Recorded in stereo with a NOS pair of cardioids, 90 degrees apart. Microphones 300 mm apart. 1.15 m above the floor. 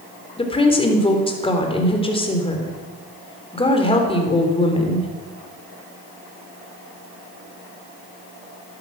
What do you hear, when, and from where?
0.4 s a woman speaking: 20° left, 3.5 m